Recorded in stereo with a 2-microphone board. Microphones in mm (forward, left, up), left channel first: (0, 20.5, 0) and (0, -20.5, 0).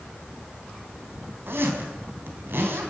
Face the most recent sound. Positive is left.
turn(degrees=-65)  # may be behind; listen again after turning